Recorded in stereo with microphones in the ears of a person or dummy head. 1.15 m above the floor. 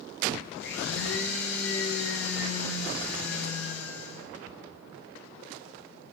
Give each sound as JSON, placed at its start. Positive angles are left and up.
{"t": 0.6, "sound": "a blender", "side_deg": 85, "distance_m": 5.0}